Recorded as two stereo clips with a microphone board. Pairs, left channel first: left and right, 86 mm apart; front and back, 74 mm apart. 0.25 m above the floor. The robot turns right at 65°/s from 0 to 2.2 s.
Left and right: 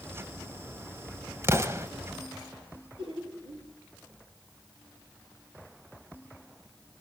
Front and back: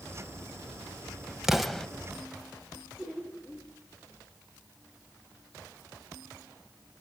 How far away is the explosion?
About 1.0 m.